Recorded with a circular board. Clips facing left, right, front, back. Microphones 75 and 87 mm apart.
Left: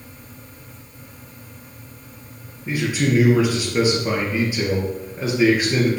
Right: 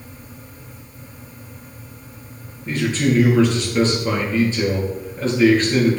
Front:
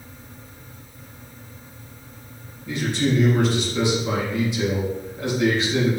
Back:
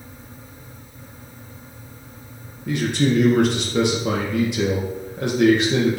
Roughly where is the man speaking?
Behind.